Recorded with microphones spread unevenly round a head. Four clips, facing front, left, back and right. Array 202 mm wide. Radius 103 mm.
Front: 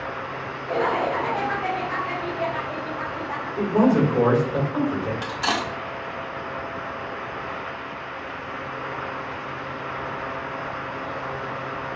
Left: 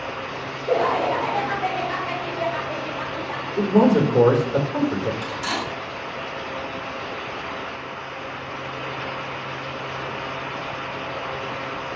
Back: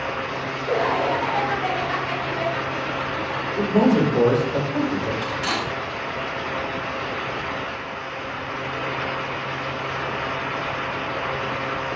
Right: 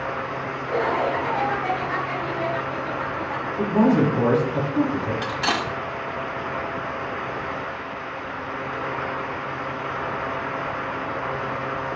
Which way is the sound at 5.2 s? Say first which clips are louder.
Right 3 dB, even; 50° right.